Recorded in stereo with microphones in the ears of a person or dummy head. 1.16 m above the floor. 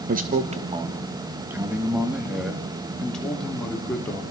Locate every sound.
0.1 s a man speaking: 45° right (ahead or behind), 1.3 m; by 4.2 s 10° left (ahead or behind), 3.5 m